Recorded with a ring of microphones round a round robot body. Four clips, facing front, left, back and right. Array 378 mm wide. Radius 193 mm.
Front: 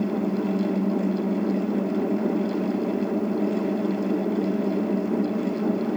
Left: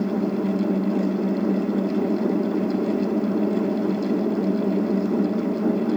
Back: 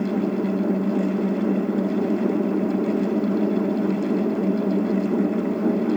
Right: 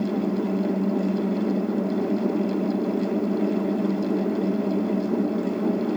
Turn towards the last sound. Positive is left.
No sound to turn to.